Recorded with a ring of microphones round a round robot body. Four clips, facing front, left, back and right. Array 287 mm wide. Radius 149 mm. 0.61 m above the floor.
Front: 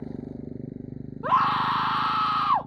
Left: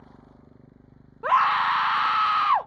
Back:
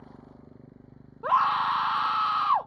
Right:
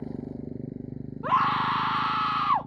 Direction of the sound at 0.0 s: 45° right.